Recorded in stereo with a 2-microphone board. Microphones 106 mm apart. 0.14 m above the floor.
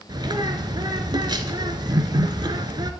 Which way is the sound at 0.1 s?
40° right (ahead or behind).